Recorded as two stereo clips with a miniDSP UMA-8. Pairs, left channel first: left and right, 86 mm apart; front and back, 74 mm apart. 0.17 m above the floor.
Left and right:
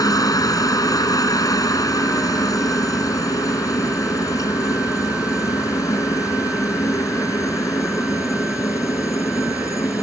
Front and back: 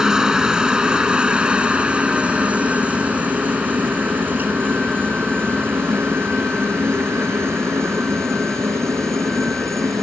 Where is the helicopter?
100° left; by 10.0 s 140° left.